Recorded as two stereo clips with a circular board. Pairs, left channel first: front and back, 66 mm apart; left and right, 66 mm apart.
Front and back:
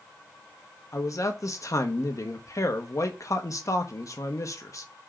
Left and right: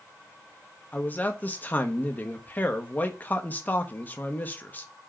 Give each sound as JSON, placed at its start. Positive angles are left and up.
{"t": 0.9, "sound": "a man speaking", "azimuth_deg": 30, "distance_m": 1.0}